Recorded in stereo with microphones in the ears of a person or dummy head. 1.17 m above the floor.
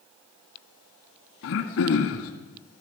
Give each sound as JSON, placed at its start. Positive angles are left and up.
{"t": 1.4, "sound": "throat clearing", "side_deg": 55, "distance_m": 1.7}